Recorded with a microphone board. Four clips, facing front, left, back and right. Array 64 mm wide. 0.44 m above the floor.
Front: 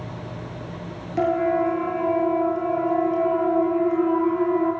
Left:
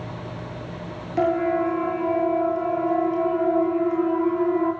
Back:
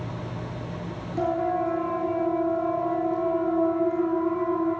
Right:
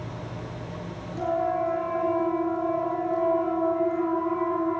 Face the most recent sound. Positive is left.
turn(degrees=40)